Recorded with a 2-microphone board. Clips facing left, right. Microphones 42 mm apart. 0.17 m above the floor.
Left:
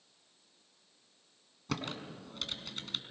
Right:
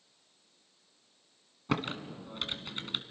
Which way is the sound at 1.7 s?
30° right (ahead or behind).